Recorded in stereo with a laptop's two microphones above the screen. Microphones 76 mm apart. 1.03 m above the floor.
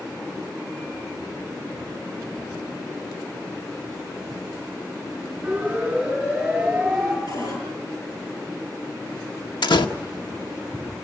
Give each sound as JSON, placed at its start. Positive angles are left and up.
{"t": 5.4, "sound": "a siren", "side_deg": -10, "distance_m": 6.0}
{"t": 7.3, "sound": "a cupboard door", "side_deg": 60, "distance_m": 10.0}
{"t": 9.6, "sound": "a door slam", "side_deg": 85, "distance_m": 1.4}